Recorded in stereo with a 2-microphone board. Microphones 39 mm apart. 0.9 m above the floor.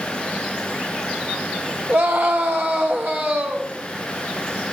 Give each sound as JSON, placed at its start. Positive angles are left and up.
{"t": 1.9, "sound": "a scream", "side_deg": -70, "distance_m": 2.5}